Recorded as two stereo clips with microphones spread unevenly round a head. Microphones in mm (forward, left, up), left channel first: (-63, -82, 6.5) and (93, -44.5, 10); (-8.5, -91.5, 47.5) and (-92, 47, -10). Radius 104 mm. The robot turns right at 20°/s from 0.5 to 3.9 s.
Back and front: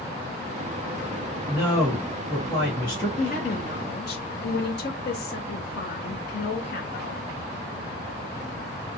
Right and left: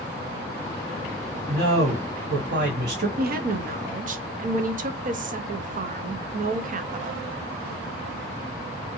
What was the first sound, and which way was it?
A man speaking, 100° left.